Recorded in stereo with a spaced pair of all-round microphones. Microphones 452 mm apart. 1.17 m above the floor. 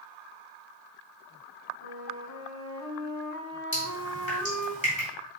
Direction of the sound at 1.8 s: 35° left (ahead or behind).